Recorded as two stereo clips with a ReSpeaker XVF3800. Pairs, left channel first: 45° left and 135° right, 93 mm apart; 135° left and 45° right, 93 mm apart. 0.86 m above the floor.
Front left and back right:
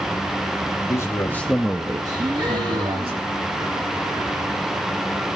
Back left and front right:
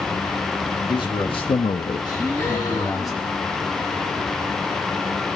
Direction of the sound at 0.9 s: 100° left.